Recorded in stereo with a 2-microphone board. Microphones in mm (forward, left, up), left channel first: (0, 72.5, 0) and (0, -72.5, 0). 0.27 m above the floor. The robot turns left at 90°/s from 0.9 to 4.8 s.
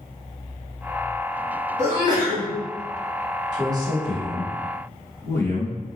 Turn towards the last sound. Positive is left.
turn(degrees=15)  # may be behind; listen again after turning